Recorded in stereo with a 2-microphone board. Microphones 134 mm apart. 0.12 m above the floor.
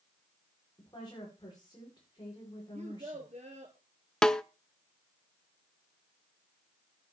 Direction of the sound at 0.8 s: 35° left (ahead or behind).